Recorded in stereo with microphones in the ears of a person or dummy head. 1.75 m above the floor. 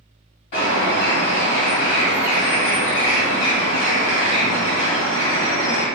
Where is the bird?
30° left (ahead or behind), 1.8 m.